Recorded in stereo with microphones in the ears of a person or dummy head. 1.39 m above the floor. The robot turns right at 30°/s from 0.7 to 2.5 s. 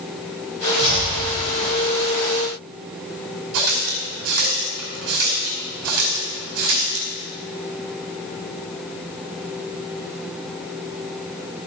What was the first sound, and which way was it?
Chopping, 25° right (ahead or behind).